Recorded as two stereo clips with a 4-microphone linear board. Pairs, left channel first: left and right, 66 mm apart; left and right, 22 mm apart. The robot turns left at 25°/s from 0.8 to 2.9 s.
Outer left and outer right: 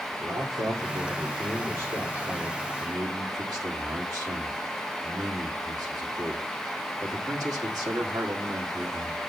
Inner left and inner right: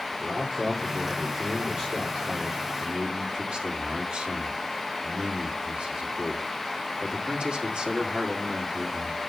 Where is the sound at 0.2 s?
115° right, 3 m; by 2.7 s 160° right, 3 m.